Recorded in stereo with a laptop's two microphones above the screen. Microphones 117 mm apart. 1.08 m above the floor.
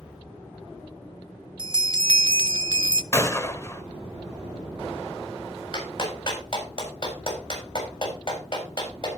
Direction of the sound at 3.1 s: 25° left (ahead or behind).